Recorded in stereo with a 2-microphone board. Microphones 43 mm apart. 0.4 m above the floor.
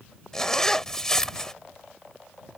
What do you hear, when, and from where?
0.3 s a zipper: 10° left (ahead or behind)